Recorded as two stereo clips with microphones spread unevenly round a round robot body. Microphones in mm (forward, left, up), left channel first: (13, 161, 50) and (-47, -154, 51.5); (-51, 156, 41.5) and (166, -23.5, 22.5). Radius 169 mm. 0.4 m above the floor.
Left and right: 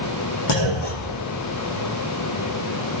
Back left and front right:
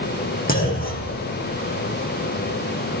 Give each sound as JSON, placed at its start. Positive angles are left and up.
{"t": 0.5, "sound": "a clunk", "azimuth_deg": 80, "distance_m": 5.0}